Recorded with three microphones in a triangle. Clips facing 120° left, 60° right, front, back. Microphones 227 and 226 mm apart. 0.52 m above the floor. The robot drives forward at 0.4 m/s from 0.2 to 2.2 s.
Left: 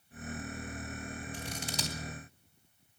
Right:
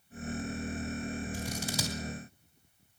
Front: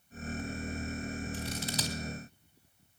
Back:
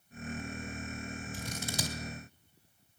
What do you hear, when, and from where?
1.3 s scissors: 140° right, 3 m